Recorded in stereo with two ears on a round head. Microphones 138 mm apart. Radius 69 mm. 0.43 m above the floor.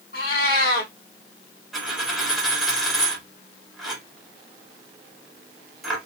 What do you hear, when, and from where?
0.1 s a cat meowing: 70° left (ahead or behind), 1.1 m
1.7 s a dropped coin: centre (ahead or behind), 1.3 m